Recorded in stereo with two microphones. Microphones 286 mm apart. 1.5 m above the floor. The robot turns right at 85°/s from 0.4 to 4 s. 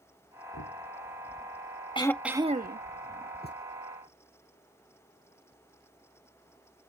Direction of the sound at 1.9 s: 160° left.